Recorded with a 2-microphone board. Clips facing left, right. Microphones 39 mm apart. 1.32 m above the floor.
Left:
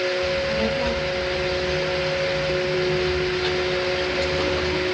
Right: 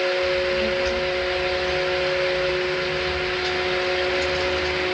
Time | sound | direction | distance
0.2 | a child speaking | 35° left (ahead or behind) | 3.5 m